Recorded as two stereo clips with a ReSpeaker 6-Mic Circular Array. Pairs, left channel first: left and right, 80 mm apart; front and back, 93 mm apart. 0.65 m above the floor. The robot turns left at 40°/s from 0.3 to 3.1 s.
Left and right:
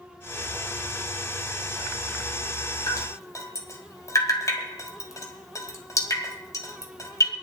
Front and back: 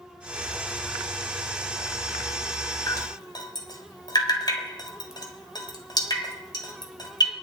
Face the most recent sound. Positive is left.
turn(degrees=40)